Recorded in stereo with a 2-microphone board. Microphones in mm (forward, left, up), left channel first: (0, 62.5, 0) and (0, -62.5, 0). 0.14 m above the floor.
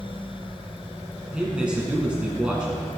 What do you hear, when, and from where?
1.3 s a man speaking: 5° right (ahead or behind), 1.3 m